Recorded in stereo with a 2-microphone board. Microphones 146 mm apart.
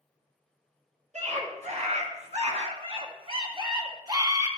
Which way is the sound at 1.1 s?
55° right (ahead or behind).